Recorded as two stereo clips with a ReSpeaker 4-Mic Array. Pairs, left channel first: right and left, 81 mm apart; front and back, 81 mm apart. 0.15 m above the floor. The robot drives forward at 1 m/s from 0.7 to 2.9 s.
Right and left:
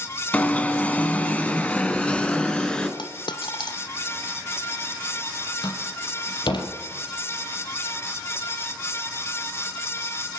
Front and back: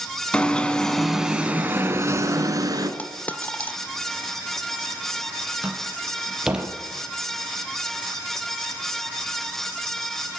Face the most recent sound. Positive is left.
turn(degrees=-100)